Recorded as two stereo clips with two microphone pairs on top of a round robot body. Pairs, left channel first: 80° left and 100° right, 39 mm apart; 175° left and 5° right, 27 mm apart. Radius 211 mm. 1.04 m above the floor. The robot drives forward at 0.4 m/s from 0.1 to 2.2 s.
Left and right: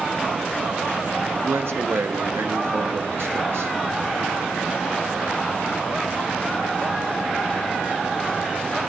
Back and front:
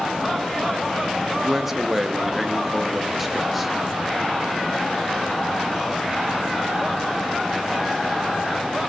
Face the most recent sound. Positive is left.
turn(degrees=-95)